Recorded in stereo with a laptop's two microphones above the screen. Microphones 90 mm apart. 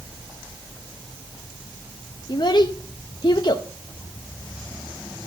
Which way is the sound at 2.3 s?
55° left (ahead or behind).